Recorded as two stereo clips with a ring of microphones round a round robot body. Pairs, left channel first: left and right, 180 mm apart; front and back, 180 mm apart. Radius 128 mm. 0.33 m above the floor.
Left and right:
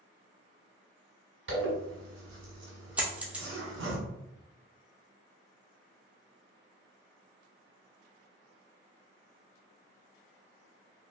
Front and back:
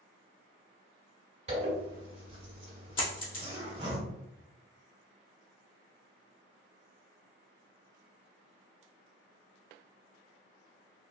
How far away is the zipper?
About 1.4 m.